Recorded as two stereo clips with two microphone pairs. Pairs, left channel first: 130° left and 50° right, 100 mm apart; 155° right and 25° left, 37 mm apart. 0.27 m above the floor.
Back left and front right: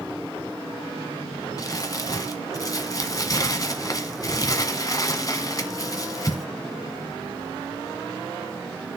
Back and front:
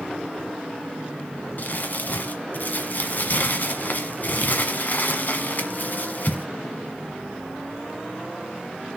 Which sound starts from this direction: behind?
Crumpling, at 1.6 s.